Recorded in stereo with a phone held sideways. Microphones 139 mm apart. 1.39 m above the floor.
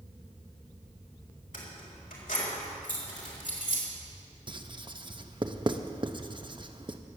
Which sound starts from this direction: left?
Keys jangling, at 1.5 s.